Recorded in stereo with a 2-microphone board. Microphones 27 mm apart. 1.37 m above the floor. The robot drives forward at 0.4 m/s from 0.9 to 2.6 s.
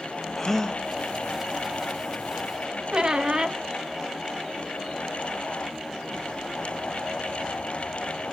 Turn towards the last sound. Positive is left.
turn(degrees=-35)  # may be behind; listen again after turning